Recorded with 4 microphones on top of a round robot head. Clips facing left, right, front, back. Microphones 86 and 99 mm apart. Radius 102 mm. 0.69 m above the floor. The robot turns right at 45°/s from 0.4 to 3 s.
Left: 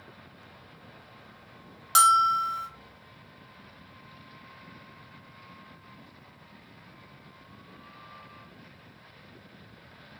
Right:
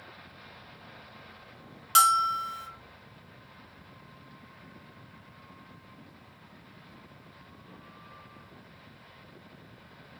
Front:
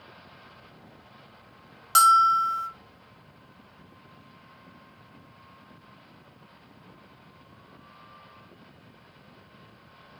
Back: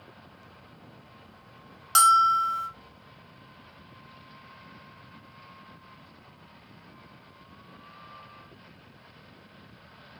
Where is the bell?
80° left, 1.0 m; by 2.7 s 115° left, 1.0 m.